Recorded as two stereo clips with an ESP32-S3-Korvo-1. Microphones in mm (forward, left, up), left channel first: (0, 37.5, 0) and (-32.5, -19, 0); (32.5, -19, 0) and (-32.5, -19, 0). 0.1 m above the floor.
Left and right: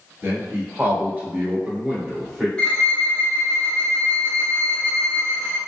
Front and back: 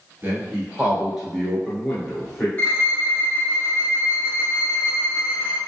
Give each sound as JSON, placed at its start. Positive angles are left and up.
{"t": 0.2, "sound": "a man speaking", "azimuth_deg": -145, "distance_m": 1.5}
{"t": 2.6, "sound": "a violin", "azimuth_deg": 10, "distance_m": 0.5}